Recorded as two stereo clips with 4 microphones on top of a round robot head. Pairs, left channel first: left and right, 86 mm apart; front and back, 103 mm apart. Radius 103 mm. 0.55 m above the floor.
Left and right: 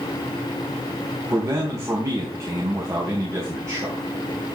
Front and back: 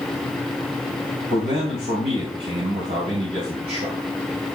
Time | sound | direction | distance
1.3 | a man speaking | 145° right | 3.5 m